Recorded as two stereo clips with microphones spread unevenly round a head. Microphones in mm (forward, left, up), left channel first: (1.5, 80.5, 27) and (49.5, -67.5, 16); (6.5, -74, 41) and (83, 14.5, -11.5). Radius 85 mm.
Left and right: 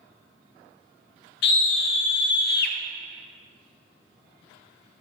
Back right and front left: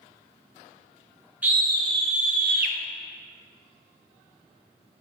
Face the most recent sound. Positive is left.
turn(degrees=85)